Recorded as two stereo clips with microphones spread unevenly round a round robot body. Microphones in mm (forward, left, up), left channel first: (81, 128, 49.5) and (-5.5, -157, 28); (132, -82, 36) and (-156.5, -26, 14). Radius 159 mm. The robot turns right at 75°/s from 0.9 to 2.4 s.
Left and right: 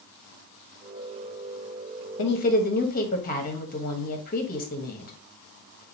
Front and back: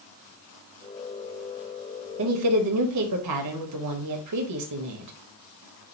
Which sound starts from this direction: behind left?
A woman speaking, at 2.2 s.